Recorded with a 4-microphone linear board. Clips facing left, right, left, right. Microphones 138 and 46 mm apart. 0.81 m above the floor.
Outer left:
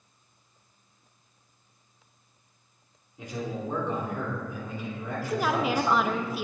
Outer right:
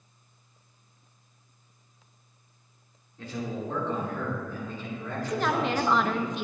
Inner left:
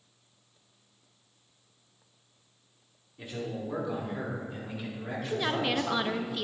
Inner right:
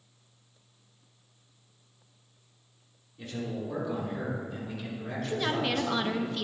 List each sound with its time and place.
3.2 s a man speaking: 15° left (ahead or behind), 2.5 m; by 6.2 s 10° left (ahead or behind), 4 m
5.2 s a woman speaking: 5° left (ahead or behind), 0.6 m